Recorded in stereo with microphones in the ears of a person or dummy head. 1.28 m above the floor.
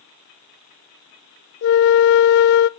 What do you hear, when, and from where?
1.6 s a flute: 60° left (ahead or behind), 0.6 m